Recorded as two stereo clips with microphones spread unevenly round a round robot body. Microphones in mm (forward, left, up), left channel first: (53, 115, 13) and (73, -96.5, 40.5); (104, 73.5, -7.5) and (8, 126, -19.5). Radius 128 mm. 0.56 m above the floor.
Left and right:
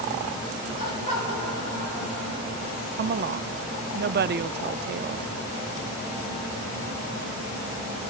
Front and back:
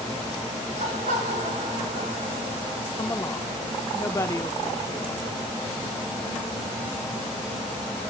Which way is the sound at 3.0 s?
95° right.